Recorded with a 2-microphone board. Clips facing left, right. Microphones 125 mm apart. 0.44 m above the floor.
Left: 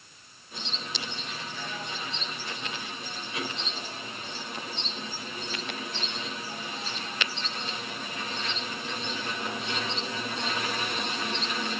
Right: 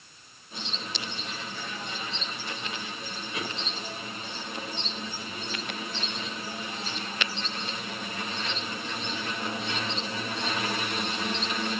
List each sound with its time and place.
Only background noise.